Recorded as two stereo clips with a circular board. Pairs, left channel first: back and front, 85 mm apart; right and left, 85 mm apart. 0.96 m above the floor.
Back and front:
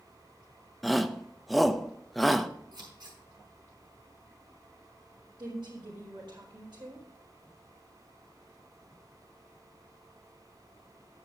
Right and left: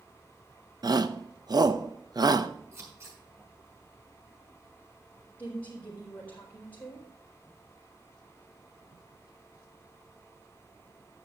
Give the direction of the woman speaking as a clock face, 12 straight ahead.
1 o'clock.